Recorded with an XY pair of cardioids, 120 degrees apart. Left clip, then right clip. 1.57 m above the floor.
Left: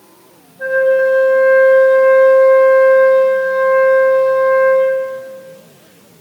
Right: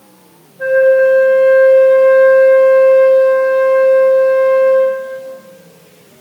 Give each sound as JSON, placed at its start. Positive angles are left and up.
{"t": 0.6, "sound": "a flute", "azimuth_deg": -15, "distance_m": 2.5}